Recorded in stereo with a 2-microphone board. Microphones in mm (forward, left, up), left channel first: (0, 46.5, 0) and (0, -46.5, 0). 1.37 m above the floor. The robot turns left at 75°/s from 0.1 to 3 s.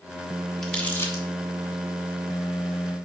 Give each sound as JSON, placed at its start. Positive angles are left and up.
{"t": 0.6, "sound": "crumpling", "side_deg": 5, "distance_m": 1.0}